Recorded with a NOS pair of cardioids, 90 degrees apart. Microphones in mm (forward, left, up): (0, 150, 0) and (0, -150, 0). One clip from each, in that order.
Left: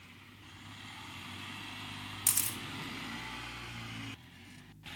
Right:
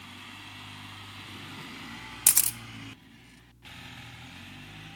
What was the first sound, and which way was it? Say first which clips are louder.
A camera shutter: right 8 dB; 40° right.